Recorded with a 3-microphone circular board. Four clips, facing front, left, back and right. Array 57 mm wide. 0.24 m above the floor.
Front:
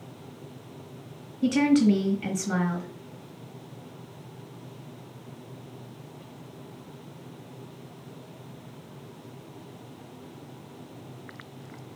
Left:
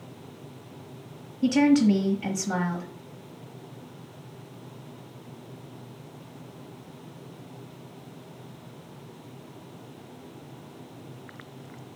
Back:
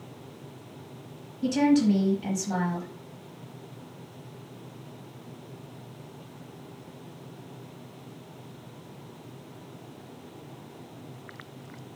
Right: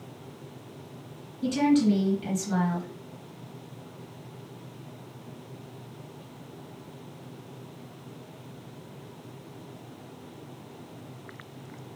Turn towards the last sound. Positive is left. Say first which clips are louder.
# left 3 dB, front 1 dB
turn(degrees=30)